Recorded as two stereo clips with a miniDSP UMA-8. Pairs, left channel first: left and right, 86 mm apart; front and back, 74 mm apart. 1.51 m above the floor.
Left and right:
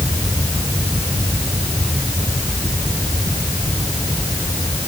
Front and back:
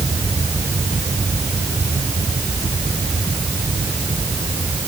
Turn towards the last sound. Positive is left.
No sound to turn to.